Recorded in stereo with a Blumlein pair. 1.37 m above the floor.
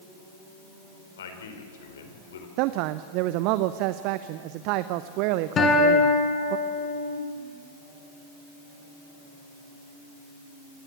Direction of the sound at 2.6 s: 45° right.